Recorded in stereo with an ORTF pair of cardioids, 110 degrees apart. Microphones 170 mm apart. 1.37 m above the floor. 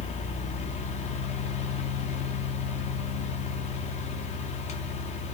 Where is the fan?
45° left, 0.7 m.